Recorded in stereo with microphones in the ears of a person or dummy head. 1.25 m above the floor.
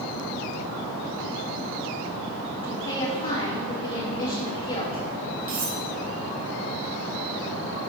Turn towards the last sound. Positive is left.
turn(degrees=-70)  # may be behind; listen again after turning